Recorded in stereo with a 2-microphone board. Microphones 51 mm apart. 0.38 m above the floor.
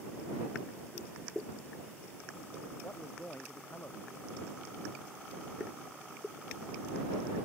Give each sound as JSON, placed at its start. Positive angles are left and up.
{"t": 2.8, "sound": "a man speaking", "side_deg": 35}